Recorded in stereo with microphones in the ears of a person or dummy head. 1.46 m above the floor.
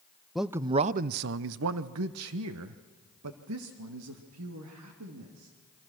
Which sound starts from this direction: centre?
A man speaking, at 0.3 s.